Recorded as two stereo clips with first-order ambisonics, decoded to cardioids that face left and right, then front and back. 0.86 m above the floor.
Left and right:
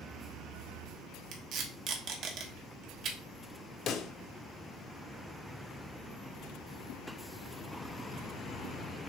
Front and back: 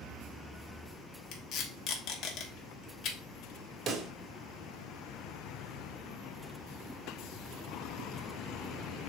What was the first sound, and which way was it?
Tape being pulled, 50° right.